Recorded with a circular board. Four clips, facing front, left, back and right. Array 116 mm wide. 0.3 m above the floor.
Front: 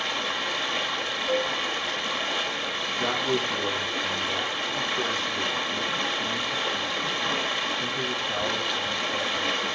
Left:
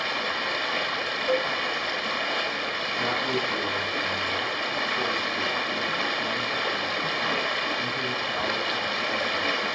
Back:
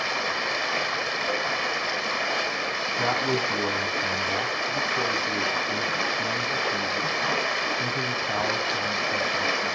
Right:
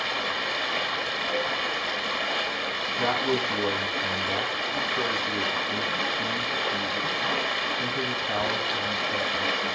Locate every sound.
0.0 s running water: 170° left, 0.9 m
1.3 s a cowbell: 105° left, 0.7 m
3.0 s a man speaking: 150° right, 1.8 m